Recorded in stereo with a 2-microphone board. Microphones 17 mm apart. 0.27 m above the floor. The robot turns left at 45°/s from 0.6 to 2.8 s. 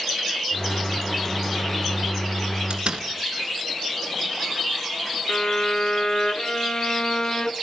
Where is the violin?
50° left (ahead or behind), 0.8 m.